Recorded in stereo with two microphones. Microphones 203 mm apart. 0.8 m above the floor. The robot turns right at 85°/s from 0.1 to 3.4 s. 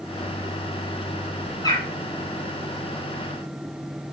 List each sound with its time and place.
1.6 s a bird: 15° left (ahead or behind), 1.2 m; by 1.9 s 35° left (ahead or behind), 1.2 m